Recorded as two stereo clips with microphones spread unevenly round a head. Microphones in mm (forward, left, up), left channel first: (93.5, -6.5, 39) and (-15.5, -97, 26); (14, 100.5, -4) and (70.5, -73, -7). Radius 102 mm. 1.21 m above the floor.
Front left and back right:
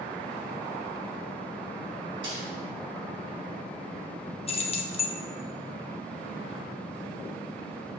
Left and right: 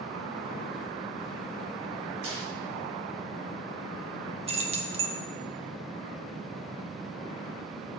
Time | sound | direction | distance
2.2 | a snare drum | 85° right | 4 m
4.5 | keys jangling | 10° right | 1.0 m